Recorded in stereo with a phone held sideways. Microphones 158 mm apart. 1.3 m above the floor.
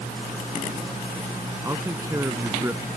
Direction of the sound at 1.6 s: 20° right (ahead or behind).